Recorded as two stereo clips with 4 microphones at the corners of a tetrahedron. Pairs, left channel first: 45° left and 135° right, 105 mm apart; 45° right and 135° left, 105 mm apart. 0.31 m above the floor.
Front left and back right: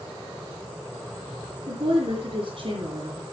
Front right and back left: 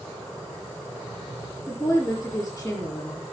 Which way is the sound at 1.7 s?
120° right.